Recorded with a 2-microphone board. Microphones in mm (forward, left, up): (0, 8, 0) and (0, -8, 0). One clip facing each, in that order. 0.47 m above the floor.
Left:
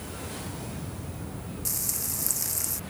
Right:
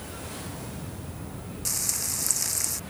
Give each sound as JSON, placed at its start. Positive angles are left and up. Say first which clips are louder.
{"t": 1.6, "sound": "frying", "louder": "right 5 dB", "side_deg": -25}